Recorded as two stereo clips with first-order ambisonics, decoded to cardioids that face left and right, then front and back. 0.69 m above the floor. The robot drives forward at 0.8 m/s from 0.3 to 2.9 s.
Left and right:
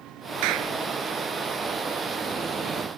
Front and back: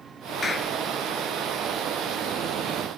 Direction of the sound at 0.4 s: 75° right.